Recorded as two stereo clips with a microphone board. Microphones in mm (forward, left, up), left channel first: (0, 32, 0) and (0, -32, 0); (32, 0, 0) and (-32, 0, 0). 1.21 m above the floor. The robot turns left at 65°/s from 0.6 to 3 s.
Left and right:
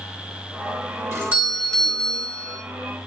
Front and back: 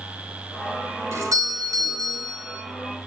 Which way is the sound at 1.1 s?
135° right.